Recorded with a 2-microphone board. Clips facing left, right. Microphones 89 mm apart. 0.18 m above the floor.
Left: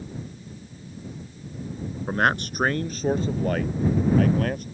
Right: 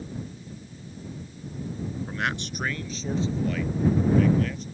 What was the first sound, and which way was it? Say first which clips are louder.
A man speaking: left 10 dB; 45° left (ahead or behind).